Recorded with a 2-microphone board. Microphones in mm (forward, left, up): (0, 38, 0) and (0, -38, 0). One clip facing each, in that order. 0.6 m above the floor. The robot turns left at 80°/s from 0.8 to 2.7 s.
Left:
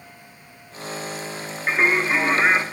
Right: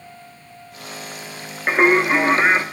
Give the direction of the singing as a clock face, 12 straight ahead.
3 o'clock.